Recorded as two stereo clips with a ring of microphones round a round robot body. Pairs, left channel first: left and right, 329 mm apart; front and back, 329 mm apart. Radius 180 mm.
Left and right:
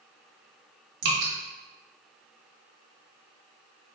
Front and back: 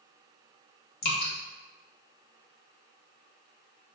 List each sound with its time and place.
1.0 s dripping: 65° right, 1.1 m